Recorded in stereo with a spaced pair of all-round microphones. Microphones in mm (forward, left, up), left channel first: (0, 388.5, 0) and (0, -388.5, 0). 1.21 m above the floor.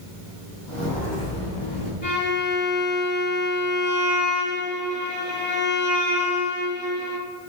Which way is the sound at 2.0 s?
35° left (ahead or behind).